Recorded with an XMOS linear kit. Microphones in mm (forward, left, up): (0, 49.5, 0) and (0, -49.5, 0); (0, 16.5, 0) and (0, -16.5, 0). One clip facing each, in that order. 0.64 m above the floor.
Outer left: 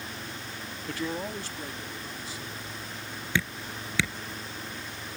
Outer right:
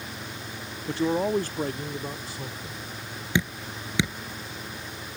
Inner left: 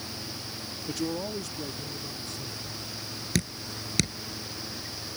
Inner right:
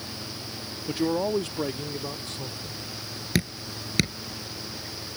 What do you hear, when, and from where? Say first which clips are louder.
0.9 s a man speaking: outer right 9 dB, inner right 7 dB; 20° right (ahead or behind); by 2.9 s 60° right (ahead or behind)
3.4 s dripping: outer right 3 dB, inner right 3 dB; 20° right (ahead or behind)